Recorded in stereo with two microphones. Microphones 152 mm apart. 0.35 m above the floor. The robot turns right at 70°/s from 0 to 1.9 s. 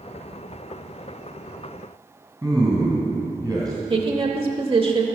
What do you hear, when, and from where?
2.4 s a man speaking: 25° right (ahead or behind), 2.5 m
3.9 s a woman speaking: 35° right (ahead or behind), 1.0 m